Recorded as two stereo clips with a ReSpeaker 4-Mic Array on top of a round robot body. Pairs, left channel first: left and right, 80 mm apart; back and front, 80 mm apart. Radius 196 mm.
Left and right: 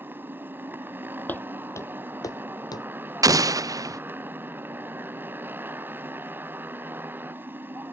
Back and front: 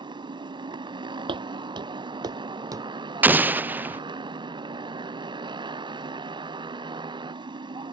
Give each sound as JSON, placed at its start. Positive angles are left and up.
{"t": 0.0, "sound": "a motorcycle", "azimuth_deg": -25}
{"t": 1.3, "sound": "footsteps", "azimuth_deg": 20}
{"t": 3.2, "sound": "an explosion", "azimuth_deg": -60}